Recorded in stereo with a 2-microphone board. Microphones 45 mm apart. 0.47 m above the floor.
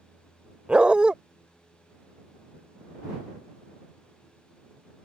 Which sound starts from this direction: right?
A dog barking, at 0.7 s.